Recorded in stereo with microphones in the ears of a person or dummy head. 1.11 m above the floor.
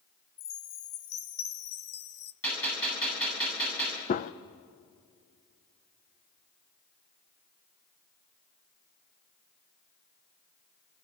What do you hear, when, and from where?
0.4 s a chime: 55° left (ahead or behind), 1.0 m
2.4 s a gunshot: 10° left (ahead or behind), 8 m
4.1 s a gunshot: 35° left (ahead or behind), 0.5 m